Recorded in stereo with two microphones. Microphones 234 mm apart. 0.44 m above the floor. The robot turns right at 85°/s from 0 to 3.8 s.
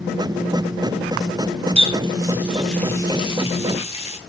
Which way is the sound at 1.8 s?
25° right (ahead or behind).